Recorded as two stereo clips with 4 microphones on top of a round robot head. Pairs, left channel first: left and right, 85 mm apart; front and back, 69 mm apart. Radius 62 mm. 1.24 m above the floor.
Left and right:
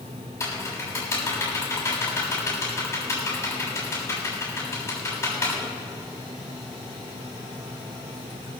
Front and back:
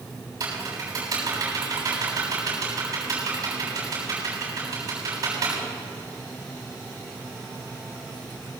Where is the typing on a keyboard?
150° left, 6.5 m.